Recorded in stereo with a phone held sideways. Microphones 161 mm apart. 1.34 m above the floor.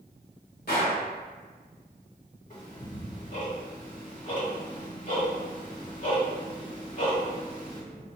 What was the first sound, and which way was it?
A gunshot, 80° left.